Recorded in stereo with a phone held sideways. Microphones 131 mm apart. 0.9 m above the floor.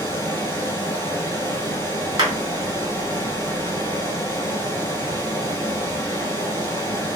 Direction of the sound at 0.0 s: 20° left (ahead or behind).